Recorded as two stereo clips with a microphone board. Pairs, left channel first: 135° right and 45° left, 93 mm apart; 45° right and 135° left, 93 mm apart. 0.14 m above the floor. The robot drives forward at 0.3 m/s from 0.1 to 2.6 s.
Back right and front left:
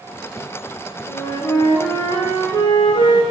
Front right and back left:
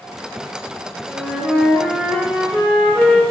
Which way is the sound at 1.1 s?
130° right.